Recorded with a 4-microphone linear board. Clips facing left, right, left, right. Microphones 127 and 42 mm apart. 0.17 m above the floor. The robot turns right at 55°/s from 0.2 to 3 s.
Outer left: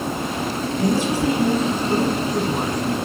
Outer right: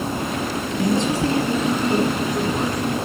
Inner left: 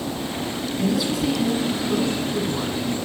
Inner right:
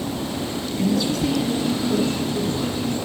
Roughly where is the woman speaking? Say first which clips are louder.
Even, inner right 1 dB; ahead.